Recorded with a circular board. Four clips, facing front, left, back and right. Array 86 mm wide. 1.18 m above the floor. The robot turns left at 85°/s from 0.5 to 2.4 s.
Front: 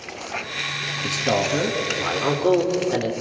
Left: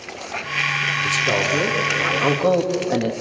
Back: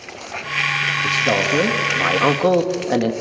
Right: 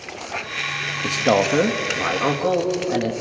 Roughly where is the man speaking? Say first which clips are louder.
Right 6 dB, back 1 dB; right.